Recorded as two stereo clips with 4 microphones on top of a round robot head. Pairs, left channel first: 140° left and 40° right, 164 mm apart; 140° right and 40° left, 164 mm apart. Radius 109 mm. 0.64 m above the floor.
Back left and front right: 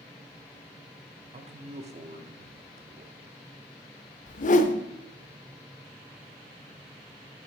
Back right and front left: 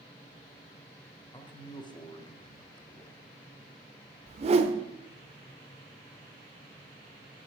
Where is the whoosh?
95° left, 0.8 m.